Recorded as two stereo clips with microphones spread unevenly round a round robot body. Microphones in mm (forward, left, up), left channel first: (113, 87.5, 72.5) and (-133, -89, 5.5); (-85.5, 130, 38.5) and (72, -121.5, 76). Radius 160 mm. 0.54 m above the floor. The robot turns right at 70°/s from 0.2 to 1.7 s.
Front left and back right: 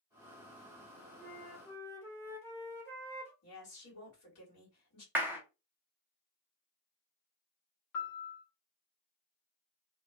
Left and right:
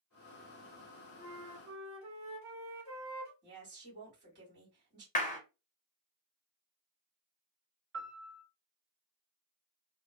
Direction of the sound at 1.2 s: 95° right.